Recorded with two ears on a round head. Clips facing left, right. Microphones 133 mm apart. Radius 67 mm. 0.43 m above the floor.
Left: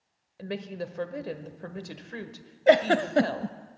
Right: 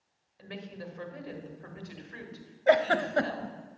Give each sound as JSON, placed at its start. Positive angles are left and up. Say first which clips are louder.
{"t": 0.4, "sound": "a woman speaking", "louder": "left 8 dB", "side_deg": 55, "distance_m": 1.5}
{"t": 2.7, "sound": "a giggle", "louder": "left 4 dB", "side_deg": 25, "distance_m": 0.5}